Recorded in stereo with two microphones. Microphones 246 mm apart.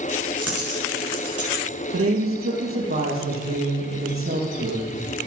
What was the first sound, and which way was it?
A dropped coin, 70° right (ahead or behind).